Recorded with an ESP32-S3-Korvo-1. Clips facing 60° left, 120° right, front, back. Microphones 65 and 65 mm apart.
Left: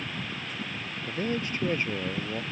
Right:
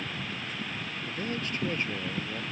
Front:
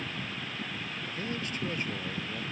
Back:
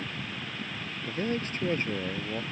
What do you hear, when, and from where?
1.1 s a man speaking: 125° left